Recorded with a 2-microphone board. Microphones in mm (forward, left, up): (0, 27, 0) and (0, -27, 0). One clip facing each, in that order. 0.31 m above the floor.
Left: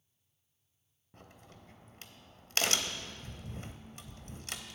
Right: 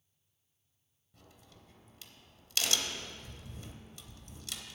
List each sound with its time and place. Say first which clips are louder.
1.1 s a crack: left 4 dB; 45° left (ahead or behind), 0.7 m